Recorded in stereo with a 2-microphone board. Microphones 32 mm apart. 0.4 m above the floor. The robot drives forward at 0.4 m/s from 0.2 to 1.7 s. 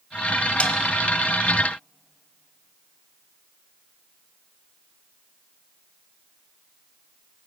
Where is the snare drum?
40° left (ahead or behind), 1.1 m; by 0.7 s 45° left (ahead or behind), 1.0 m.